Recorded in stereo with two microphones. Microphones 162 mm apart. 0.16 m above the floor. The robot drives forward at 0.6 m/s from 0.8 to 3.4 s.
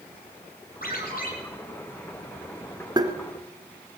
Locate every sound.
0.8 s a ringtone: 60° left (ahead or behind), 3 m
3.0 s tapping: 25° right (ahead or behind), 0.9 m; by 3.1 s 20° right (ahead or behind), 1.0 m